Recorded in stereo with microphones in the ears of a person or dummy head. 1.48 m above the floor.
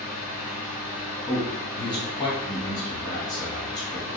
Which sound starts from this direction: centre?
A man speaking, at 1.3 s.